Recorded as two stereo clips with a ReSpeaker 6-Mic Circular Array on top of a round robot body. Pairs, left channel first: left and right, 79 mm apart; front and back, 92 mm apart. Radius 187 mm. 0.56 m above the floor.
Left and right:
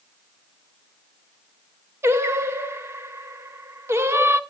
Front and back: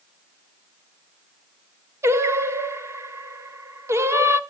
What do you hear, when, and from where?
2.0 s singing: 135° right, 1.4 m